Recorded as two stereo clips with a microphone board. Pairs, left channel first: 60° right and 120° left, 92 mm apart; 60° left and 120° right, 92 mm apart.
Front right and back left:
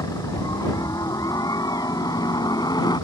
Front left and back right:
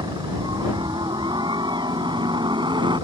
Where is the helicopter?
100° right; by 3.0 s 95° right.